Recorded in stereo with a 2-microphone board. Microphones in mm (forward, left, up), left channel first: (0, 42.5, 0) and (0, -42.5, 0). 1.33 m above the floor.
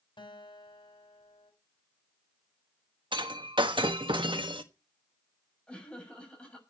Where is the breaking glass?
75° right (ahead or behind), 1.3 m.